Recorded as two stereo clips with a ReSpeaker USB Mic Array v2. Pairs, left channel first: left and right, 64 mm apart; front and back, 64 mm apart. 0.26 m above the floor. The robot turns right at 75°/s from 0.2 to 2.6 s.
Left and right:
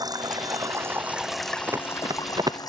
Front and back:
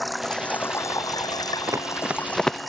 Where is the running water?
90° right; by 2.7 s 90° left.